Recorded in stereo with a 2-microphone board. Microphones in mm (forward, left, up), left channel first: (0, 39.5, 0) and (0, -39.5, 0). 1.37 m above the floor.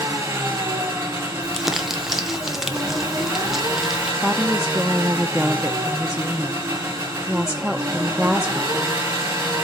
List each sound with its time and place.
0.0 s an engine running: 35° right (ahead or behind), 4.5 m
1.4 s crumpling: 5° right (ahead or behind), 0.9 m
4.2 s a woman speaking: 5° right (ahead or behind), 0.6 m